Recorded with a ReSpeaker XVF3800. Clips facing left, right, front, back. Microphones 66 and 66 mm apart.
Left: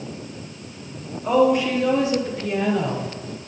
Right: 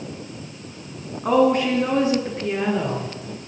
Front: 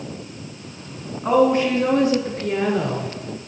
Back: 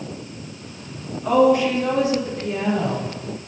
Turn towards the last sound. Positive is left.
turn(degrees=-30)